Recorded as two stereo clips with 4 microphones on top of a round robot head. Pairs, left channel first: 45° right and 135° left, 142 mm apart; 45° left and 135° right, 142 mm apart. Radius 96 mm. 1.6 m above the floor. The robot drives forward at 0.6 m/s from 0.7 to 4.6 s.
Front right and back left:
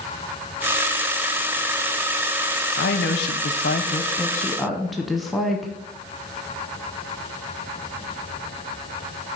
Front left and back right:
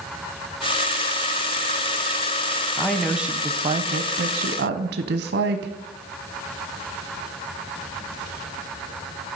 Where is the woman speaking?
35° right, 0.8 m; by 5.7 s 135° right, 0.7 m.